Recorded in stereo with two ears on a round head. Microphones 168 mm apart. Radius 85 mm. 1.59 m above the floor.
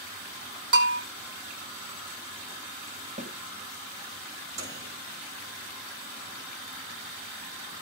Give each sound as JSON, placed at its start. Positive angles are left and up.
{"t": 0.7, "sound": "a bell", "side_deg": -65, "distance_m": 4.0}
{"t": 3.2, "sound": "a snare drum", "side_deg": -35, "distance_m": 1.9}
{"t": 4.6, "sound": "a microwave", "side_deg": -35, "distance_m": 7.0}